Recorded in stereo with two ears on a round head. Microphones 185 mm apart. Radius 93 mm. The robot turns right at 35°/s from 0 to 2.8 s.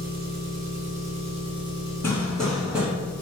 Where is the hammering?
15° left (ahead or behind), 1.4 m; by 2.9 s 10° right (ahead or behind), 1.4 m.